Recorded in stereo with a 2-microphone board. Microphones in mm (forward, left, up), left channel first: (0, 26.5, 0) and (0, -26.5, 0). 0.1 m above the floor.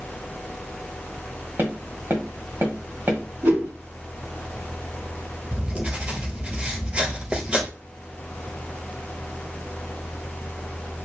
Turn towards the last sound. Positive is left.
turn(degrees=-25)  # may be behind; listen again after turning